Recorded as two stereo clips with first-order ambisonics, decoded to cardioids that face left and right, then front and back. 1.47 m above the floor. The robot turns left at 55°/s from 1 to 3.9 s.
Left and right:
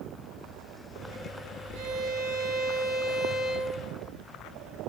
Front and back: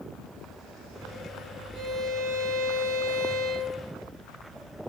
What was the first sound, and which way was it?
A violin, 80° right.